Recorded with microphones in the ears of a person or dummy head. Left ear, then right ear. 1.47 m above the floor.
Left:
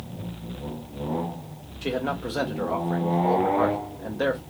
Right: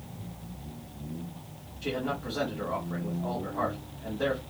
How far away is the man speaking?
About 0.5 m.